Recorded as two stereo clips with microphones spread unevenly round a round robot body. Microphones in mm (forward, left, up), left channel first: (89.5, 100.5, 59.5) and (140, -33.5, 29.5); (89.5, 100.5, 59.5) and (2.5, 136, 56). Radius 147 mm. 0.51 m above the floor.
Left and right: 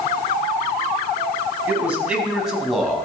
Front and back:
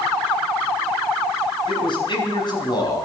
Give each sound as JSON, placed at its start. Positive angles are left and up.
{"t": 1.7, "sound": "a man speaking", "azimuth_deg": 10, "distance_m": 4.5}